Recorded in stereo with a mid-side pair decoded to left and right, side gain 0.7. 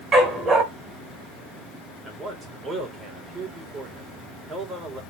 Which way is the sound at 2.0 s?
35° right.